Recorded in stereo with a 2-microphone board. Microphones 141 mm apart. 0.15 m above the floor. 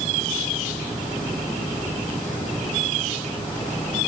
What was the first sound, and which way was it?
Only background noise.